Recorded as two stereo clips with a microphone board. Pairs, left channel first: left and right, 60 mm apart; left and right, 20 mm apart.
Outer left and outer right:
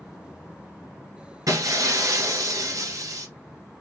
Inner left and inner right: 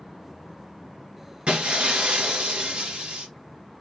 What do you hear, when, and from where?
1.5 s breaking glass: 80° right, 1.6 m